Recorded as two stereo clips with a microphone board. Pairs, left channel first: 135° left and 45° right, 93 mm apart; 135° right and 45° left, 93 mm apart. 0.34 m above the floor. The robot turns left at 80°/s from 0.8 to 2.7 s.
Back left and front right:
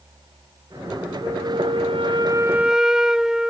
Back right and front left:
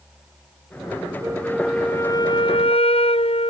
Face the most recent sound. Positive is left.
turn(degrees=-130)